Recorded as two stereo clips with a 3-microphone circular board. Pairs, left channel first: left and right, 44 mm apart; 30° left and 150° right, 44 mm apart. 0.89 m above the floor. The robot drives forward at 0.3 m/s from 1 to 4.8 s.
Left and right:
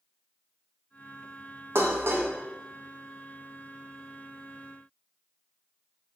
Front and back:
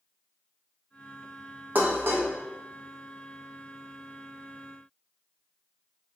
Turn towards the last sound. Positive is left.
turn(degrees=-155)